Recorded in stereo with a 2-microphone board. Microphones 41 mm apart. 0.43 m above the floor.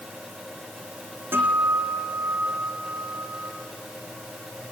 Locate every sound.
1.3 s a guitar: 60° right (ahead or behind), 8 m